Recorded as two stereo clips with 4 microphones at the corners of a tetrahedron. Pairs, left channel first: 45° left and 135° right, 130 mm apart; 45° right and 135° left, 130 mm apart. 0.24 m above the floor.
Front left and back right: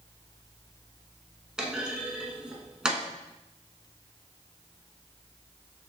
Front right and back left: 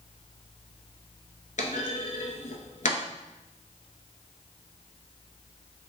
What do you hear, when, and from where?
1.6 s a clunk: 50° right, 0.8 m